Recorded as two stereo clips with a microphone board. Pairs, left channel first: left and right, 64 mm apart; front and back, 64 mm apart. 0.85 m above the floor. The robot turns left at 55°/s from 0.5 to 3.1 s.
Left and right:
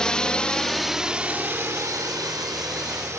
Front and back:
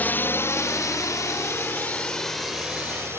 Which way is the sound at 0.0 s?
25° left.